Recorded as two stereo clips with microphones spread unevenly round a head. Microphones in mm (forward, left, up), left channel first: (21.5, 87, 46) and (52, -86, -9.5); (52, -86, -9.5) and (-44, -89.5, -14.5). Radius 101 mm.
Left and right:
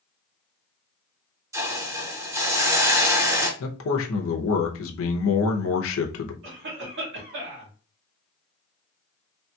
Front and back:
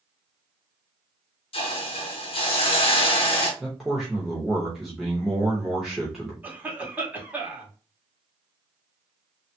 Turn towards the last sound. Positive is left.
turn(degrees=-105)